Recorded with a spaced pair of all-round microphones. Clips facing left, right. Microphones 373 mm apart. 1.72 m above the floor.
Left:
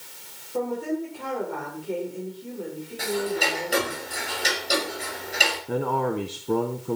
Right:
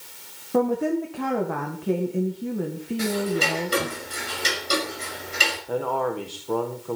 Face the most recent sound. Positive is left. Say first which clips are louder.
# even
turn(degrees=35)  # may be behind; listen again after turning